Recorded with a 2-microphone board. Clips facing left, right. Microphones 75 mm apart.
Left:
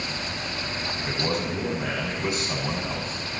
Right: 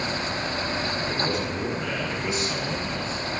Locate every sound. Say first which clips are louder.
1.0 s a man speaking: right 1 dB; 70° left (ahead or behind), 5.5 m